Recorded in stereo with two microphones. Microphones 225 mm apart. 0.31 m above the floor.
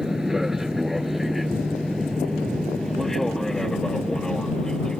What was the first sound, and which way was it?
An aircraft, centre (ahead or behind).